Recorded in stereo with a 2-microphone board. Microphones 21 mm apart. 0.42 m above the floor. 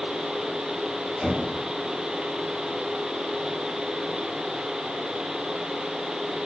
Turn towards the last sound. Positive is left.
turn(degrees=-50)  # may be behind; listen again after turning